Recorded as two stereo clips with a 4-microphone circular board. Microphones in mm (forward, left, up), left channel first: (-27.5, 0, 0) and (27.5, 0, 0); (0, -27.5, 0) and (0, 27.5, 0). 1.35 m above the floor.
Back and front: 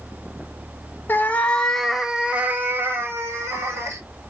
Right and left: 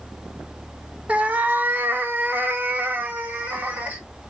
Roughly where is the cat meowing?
Behind left.